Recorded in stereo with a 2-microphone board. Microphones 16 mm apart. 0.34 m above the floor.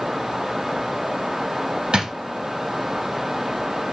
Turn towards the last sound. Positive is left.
turn(degrees=-60)  # may be behind; listen again after turning